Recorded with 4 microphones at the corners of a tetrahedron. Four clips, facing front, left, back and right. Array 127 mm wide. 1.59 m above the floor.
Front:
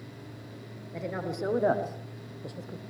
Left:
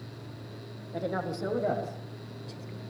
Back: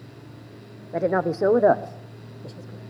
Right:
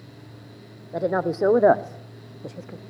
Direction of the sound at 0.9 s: 150° right.